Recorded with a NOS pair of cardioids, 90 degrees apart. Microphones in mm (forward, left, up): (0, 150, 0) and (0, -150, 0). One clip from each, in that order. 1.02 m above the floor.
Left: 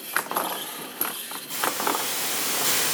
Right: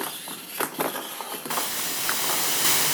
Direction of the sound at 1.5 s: 40° right.